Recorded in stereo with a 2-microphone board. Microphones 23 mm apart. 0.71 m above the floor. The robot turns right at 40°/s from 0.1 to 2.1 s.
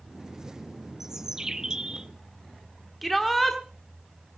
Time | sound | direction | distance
1.0 | a bird | 15° right (ahead or behind) | 0.5 m
3.0 | a shout | centre (ahead or behind) | 1.5 m